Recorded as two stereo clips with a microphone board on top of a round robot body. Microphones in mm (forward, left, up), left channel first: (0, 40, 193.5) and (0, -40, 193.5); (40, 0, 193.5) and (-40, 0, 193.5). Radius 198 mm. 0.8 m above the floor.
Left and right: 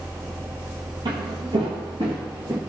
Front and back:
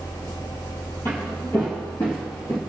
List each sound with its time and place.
1.1 s footsteps: 65° right, 1.5 m; by 2.6 s 60° right, 0.7 m